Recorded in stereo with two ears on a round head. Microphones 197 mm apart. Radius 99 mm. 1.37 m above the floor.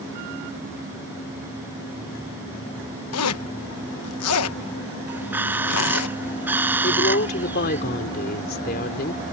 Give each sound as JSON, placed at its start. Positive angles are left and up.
{"t": 3.1, "sound": "a zipper", "side_deg": 85}
{"t": 5.1, "sound": "a bird", "side_deg": -10}
{"t": 6.8, "sound": "a woman speaking", "side_deg": 45}